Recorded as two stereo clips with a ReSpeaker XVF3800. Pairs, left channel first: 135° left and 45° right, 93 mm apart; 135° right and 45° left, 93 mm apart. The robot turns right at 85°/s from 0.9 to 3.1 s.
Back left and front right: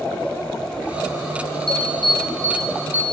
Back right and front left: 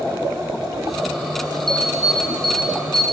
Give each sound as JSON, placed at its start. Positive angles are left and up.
{"t": 1.7, "sound": "an alarm", "azimuth_deg": 140, "distance_m": 4.5}